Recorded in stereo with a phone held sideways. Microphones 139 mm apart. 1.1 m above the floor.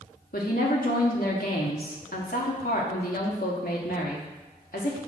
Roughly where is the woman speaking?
Left.